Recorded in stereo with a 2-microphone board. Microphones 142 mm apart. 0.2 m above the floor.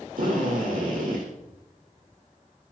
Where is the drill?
85° right, 8.5 m.